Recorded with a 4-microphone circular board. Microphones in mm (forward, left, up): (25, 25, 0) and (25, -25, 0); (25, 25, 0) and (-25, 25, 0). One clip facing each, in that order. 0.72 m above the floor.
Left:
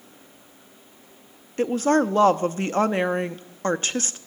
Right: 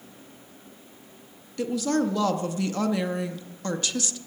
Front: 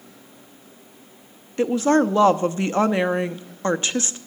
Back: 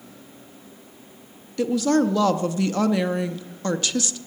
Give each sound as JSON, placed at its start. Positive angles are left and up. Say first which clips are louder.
{"t": 1.6, "sound": "a woman speaking", "louder": "left 5 dB, front 2 dB", "azimuth_deg": 50, "distance_m": 0.6}